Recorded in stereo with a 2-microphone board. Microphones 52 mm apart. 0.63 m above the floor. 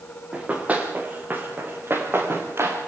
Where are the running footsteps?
25° right (ahead or behind), 4.5 m; by 2.8 s 50° right (ahead or behind), 5 m.